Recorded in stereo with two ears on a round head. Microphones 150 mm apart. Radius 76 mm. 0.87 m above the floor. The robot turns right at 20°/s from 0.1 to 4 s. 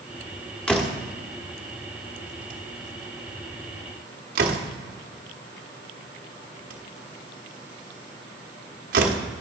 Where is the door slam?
5° left (ahead or behind), 1.2 m; by 9.2 s 60° right (ahead or behind), 1.2 m.